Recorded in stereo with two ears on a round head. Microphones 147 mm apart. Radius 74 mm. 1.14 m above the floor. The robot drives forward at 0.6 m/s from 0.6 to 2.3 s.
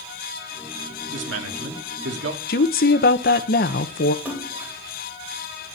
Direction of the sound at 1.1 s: 75° right (ahead or behind).